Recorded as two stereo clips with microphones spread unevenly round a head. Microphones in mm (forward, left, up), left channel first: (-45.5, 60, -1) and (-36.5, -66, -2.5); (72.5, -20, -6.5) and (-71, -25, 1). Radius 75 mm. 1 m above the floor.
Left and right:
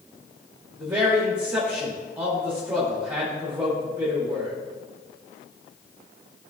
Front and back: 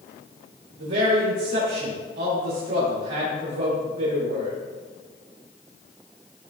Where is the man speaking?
160° right, 1.7 m.